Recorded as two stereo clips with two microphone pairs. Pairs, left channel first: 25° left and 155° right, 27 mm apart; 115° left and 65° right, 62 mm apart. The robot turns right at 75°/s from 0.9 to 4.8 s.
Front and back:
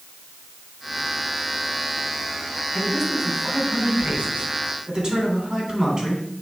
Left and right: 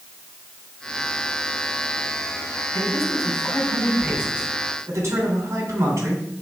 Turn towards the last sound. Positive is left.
turn(degrees=-100)